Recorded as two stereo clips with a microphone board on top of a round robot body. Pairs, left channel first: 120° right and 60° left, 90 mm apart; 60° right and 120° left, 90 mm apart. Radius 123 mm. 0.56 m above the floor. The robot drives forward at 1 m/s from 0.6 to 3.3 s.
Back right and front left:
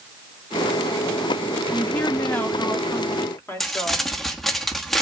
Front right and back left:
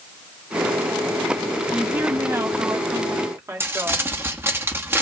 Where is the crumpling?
155° left, 1.3 m.